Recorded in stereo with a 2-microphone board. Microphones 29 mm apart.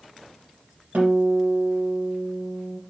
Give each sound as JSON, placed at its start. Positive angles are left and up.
{"t": 0.9, "sound": "a guitar", "side_deg": -70, "distance_m": 3.5}